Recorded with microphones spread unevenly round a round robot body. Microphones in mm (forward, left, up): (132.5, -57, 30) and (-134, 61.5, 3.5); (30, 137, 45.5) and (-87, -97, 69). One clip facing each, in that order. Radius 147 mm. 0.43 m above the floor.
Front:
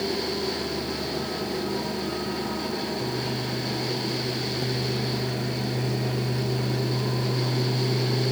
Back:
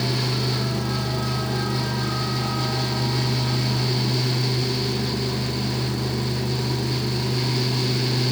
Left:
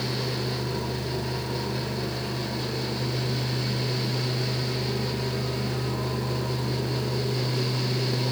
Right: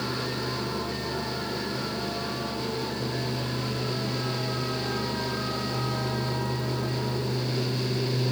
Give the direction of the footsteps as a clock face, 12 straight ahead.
I don't hear footsteps.